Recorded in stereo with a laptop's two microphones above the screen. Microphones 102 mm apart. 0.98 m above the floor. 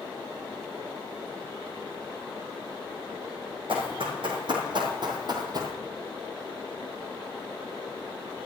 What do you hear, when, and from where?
3.7 s running footsteps: 60° right (ahead or behind), 3 m; by 5.8 s 40° right (ahead or behind), 1.5 m